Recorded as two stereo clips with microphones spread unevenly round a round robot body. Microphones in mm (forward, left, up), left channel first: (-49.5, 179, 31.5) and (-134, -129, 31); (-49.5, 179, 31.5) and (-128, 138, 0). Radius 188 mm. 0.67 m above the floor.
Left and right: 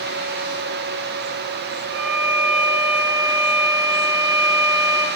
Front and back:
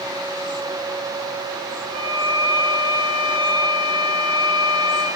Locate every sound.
1.9 s a violin: 120° right, 6 m